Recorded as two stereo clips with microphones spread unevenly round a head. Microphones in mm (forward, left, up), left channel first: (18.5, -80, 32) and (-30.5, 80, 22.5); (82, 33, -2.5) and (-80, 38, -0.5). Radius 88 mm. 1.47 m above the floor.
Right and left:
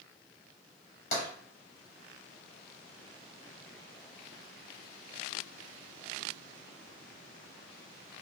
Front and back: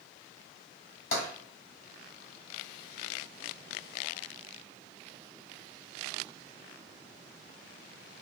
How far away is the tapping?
About 2 m.